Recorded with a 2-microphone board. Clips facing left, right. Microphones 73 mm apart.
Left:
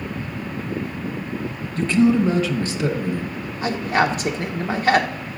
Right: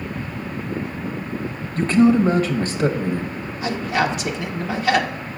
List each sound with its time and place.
1.8 s a man speaking: 45° right (ahead or behind), 1.0 m
3.6 s a man speaking: 40° left (ahead or behind), 0.9 m